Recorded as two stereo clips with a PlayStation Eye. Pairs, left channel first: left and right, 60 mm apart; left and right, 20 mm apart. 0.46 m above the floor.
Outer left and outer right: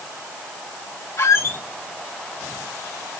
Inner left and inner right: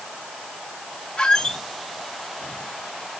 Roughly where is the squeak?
Left.